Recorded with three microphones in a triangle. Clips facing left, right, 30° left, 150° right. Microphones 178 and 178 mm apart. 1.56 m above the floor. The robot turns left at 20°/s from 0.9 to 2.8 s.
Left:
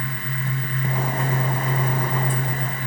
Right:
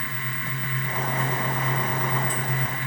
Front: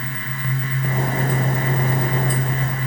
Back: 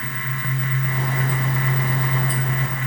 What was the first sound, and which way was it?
Only background noise.